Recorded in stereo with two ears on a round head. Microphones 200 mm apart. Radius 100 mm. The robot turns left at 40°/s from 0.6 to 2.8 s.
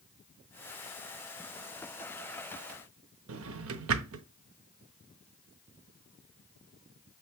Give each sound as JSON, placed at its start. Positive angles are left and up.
{"t": 3.3, "sound": "a drawer", "side_deg": -70, "distance_m": 0.7}